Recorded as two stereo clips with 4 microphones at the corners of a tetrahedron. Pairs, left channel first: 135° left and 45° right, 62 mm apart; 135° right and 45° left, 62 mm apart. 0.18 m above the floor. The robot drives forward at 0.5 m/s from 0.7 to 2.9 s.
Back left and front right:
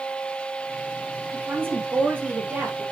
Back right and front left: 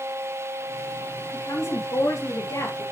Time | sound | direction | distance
1.3 | a woman speaking | 100° right | 4.5 m